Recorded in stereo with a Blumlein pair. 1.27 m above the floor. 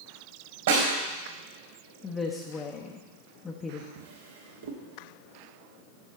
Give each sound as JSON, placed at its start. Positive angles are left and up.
{"t": 0.7, "sound": "a snare drum", "azimuth_deg": -60, "distance_m": 3.5}
{"t": 2.0, "sound": "a woman speaking", "azimuth_deg": 20, "distance_m": 0.9}
{"t": 4.0, "sound": "a drawer", "azimuth_deg": -65, "distance_m": 1.5}